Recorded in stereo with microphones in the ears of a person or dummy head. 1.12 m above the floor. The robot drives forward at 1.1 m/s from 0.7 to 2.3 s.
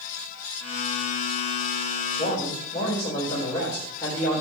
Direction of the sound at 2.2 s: 15° left (ahead or behind).